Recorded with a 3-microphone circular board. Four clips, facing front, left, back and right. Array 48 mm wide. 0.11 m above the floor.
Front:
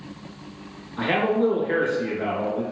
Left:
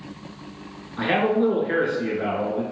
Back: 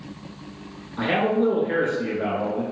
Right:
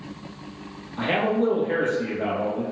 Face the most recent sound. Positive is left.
turn(degrees=70)